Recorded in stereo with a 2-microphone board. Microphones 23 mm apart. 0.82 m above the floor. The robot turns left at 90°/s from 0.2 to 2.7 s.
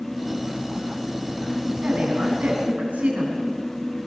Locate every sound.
1.8 s a woman speaking: 40° right, 7 m; by 3.4 s 120° right, 7 m